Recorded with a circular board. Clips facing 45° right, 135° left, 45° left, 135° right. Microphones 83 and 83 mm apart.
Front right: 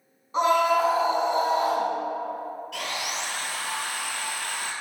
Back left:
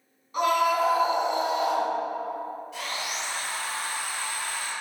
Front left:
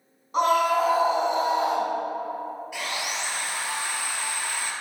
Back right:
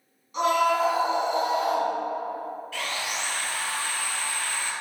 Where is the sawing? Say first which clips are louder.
Front right 3 dB, even; 30° right, 1.4 m.